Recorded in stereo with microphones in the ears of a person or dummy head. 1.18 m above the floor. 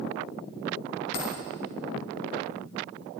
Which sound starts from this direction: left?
A dropped coin, at 1.1 s.